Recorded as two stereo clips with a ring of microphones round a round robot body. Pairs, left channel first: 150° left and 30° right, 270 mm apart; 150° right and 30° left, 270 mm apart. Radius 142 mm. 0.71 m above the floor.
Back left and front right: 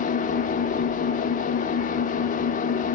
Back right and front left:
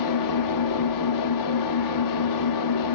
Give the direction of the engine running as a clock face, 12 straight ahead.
5 o'clock.